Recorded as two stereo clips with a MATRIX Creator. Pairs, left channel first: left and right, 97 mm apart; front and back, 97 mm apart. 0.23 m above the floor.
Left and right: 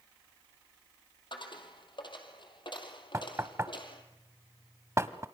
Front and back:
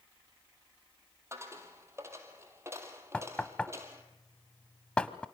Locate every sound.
1.3 s a dropped coin: 120° left, 2.5 m
3.1 s knocking: 70° right, 0.9 m